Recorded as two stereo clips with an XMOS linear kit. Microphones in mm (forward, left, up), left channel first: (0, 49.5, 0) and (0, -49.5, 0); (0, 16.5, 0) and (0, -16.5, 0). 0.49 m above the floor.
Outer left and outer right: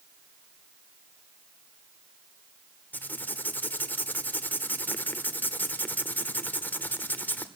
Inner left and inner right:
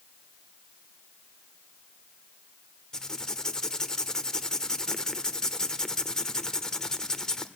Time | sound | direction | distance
2.9 | writing | 20° left (ahead or behind) | 1.3 m